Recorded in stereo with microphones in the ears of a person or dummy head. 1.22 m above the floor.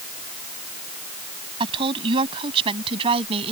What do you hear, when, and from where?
1.6 s a woman speaking: 25° right (ahead or behind); by 3.5 s 30° right (ahead or behind)